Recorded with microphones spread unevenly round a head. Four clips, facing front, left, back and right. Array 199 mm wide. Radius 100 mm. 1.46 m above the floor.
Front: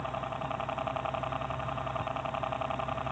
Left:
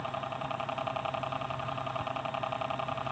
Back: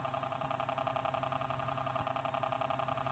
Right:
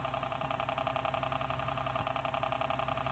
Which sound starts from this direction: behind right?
A helicopter, at 0.0 s.